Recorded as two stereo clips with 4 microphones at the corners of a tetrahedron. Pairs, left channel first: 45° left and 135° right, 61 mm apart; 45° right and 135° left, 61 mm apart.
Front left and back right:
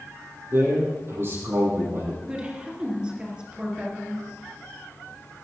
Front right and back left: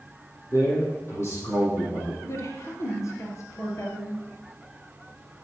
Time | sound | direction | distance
0.5 | a man speaking | 90° right | 6 m
2.2 | a woman speaking | 65° right | 3 m